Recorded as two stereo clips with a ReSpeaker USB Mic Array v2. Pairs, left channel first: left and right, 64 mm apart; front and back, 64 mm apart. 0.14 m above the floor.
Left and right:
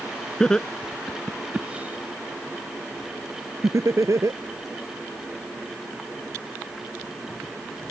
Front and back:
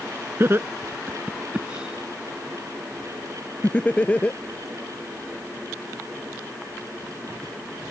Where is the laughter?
160° left; by 4.4 s 65° right.